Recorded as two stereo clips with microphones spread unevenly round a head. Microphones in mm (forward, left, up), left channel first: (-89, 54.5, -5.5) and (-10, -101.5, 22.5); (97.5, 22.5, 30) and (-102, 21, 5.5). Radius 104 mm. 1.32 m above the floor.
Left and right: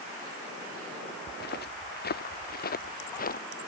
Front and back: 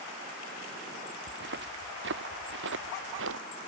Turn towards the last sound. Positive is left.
turn(degrees=155)